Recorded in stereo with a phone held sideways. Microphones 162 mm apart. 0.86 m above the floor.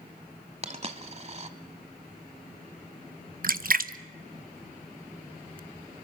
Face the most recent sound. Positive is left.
turn(degrees=-60)  # may be behind; listen again after turning